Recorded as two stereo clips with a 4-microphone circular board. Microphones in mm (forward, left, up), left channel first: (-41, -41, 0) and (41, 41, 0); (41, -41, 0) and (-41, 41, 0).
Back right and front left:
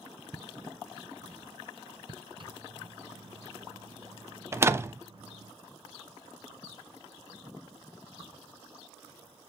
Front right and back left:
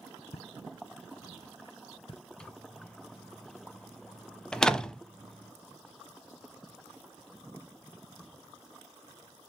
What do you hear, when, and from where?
0.3 s footsteps: 40° right, 0.7 m; by 2.2 s straight ahead, 1.5 m
2.4 s a microwave: 35° left, 1.1 m
4.5 s a door slam: 30° left, 0.7 m